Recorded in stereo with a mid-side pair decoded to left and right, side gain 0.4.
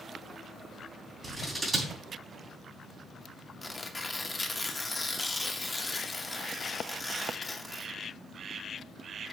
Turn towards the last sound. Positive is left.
turn(degrees=20)